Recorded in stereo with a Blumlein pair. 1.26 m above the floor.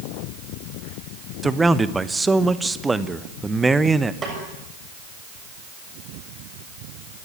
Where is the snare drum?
20° right, 7 m.